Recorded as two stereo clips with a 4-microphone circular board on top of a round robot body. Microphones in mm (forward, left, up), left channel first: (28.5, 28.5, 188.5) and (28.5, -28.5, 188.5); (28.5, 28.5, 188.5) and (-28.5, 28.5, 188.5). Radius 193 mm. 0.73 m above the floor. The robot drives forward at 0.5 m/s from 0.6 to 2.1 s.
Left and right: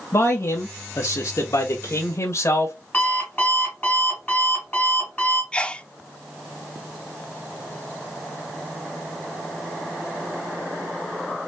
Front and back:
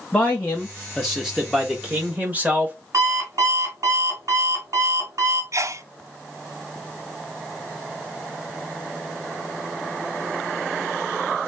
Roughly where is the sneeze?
Behind.